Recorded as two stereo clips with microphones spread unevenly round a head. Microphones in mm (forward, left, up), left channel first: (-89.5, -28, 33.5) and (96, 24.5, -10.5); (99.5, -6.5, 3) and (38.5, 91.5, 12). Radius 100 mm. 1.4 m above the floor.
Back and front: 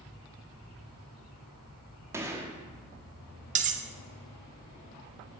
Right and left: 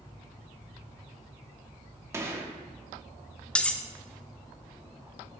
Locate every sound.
2.1 s a gunshot: 105° left, 0.9 m
3.5 s cutlery clinking: 20° left, 0.6 m